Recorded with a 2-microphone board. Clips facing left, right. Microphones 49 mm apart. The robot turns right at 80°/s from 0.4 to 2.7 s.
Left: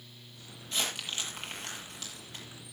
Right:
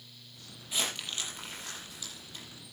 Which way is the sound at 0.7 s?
10° right (ahead or behind).